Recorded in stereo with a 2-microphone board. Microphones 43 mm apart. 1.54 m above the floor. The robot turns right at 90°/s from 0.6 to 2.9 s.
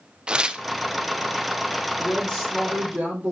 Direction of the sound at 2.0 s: 140° left.